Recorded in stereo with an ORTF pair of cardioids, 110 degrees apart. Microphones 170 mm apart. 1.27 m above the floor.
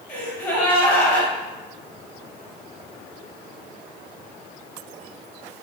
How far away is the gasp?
About 1.0 m.